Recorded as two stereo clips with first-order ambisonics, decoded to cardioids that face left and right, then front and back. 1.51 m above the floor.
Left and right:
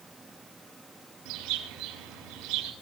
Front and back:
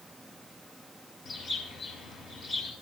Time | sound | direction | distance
1.2 | a bird | 65° right | 7 m